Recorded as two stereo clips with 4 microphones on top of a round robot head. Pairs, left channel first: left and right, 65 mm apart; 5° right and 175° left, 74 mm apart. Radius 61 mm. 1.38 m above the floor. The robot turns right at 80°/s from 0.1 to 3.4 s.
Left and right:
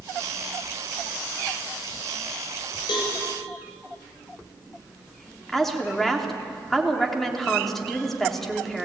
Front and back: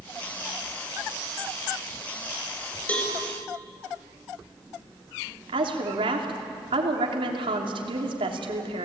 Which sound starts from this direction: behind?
A woman speaking, at 5.5 s.